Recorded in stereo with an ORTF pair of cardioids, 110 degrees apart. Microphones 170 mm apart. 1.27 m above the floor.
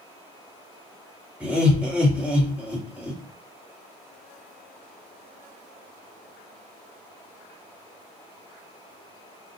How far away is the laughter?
About 1.5 m.